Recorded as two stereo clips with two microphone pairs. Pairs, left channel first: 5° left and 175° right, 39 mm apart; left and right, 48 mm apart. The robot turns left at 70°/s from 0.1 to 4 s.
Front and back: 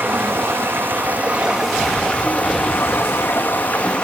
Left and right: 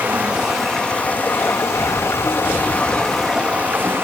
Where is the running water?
150° right, 1.0 m; by 4.0 s 60° right, 1.0 m.